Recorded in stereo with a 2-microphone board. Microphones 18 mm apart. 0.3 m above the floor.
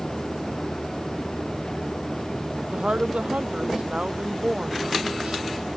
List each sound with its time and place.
2.7 s a woman speaking: 85° right; by 5.4 s 80° right